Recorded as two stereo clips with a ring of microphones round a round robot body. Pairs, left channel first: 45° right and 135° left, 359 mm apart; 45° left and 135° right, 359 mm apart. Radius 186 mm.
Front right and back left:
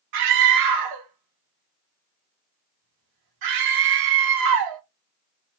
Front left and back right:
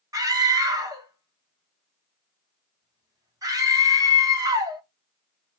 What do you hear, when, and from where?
0.1 s a scream: 145° left, 1.0 m